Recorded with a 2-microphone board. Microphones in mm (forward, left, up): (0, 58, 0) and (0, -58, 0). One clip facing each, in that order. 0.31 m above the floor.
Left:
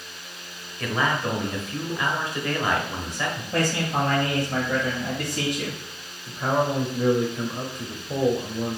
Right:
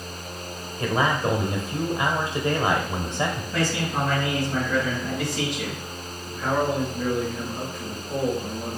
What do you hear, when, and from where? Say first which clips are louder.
0.8 s a man speaking: right 2 dB; 25° right (ahead or behind), 0.9 m
3.5 s a man speaking: left 4 dB; 45° left (ahead or behind), 1.5 m
6.3 s a man speaking: left 1 dB; 20° left (ahead or behind), 0.9 m